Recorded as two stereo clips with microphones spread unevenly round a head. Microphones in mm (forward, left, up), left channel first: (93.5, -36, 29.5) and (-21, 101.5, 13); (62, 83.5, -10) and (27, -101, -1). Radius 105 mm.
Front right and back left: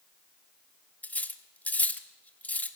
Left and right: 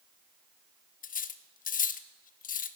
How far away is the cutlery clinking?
About 1.0 m.